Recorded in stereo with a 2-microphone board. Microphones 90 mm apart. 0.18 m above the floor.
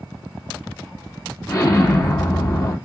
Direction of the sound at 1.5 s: 30° left (ahead or behind).